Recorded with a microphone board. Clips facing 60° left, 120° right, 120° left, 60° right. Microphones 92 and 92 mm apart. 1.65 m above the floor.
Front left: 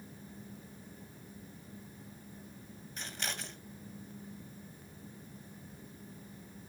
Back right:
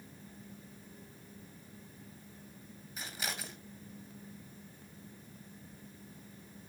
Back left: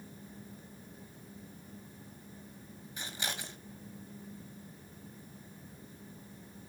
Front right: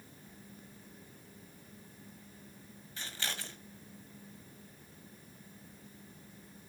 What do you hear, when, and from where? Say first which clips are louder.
3.0 s scissors: even, back left 1 dB; 165° left, 1.6 m